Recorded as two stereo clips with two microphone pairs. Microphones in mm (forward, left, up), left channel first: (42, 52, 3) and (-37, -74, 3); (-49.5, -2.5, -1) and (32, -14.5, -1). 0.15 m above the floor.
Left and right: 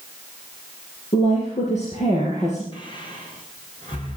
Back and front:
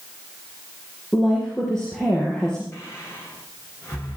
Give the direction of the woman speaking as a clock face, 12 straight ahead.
9 o'clock.